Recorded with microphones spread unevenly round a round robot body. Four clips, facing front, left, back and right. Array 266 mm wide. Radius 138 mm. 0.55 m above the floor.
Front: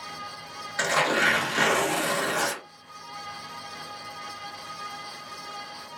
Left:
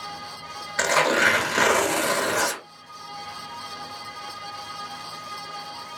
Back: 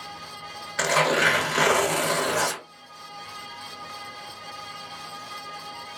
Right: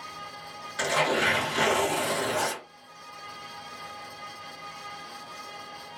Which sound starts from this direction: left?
Tearing paper, at 0.8 s.